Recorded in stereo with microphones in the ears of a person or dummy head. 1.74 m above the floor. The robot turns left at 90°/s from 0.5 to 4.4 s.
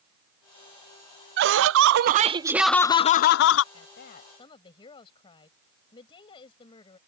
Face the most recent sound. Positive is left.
turn(degrees=35)